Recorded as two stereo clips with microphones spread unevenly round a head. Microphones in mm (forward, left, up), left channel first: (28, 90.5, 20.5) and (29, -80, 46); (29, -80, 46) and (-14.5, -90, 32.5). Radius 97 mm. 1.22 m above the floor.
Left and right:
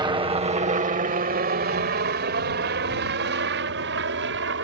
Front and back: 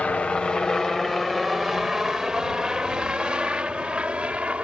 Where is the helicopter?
40° right; by 4.7 s 105° right.